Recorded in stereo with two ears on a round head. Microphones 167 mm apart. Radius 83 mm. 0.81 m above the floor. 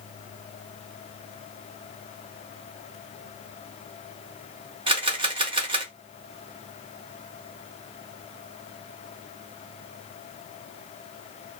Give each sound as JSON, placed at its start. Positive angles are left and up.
{"t": 4.9, "sound": "a camera shutter", "side_deg": -30, "distance_m": 0.8}